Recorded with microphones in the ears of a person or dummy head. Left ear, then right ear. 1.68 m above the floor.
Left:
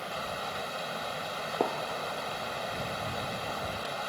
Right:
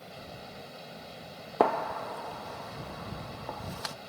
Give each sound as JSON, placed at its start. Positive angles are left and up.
{"t": 0.0, "sound": "running water", "side_deg": 55}
{"t": 1.6, "sound": "a gunshot", "side_deg": -50}